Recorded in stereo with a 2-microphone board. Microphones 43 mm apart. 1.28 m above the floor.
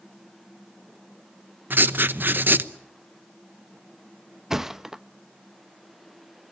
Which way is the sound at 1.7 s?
50° right (ahead or behind).